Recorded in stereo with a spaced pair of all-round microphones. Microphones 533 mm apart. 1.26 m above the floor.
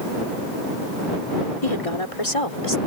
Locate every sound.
1.6 s a woman speaking: 80° left; by 2.8 s 70° left (ahead or behind)